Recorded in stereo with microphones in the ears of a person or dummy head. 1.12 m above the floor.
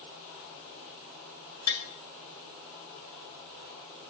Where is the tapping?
80° left, 4 m.